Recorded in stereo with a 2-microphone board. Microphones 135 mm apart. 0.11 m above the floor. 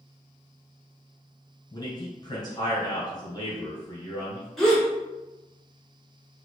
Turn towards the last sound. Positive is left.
turn(degrees=0)  # may be behind; listen again after turning